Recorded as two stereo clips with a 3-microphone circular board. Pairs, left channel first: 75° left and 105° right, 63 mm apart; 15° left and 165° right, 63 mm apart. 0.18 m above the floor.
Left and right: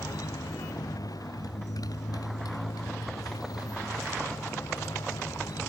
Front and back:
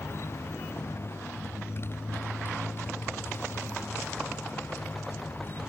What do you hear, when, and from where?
0.0 s a motorcycle: 60° left; by 5.7 s 70° left